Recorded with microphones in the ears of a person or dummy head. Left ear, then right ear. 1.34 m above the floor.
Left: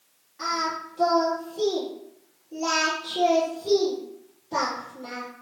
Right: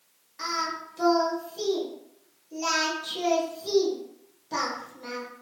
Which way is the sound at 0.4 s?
65° right (ahead or behind).